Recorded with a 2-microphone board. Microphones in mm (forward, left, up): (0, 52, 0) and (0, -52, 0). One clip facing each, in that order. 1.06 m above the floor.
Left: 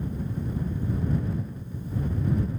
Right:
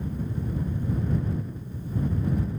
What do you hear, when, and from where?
Only background noise.